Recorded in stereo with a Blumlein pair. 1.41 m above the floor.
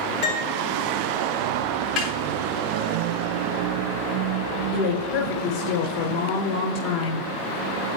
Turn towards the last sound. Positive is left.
turn(degrees=40)